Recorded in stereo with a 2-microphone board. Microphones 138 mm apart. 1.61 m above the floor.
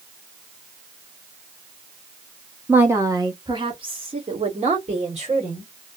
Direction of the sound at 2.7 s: 15° right (ahead or behind).